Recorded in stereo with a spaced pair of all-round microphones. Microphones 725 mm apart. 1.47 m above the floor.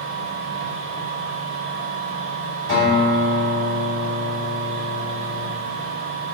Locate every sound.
0.0 s a machine running: 50° left (ahead or behind), 1.6 m
2.7 s a guitar: 60° left (ahead or behind), 1.8 m